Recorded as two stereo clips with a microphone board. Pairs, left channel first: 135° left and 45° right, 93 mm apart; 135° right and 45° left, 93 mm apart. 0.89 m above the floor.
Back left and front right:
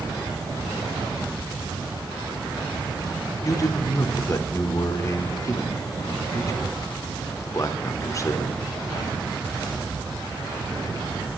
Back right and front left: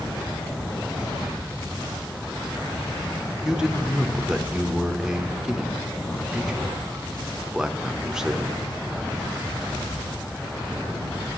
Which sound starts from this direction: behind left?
A man speaking, at 3.4 s.